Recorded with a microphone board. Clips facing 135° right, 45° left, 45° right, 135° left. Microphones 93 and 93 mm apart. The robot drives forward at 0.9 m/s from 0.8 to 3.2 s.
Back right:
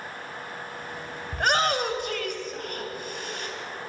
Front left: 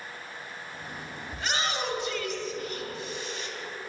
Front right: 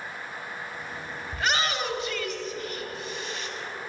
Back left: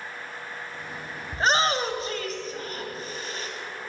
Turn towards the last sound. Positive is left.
turn(degrees=-175)